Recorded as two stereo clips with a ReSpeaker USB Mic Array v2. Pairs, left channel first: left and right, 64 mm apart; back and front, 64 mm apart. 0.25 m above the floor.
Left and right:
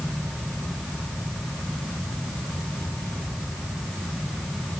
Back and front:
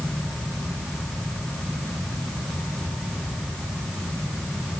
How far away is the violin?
I don't hear a violin.